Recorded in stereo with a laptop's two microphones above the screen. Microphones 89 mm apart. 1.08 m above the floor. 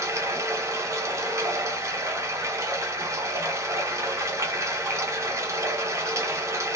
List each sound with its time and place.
0.0 s running water: 30° right (ahead or behind), 0.8 m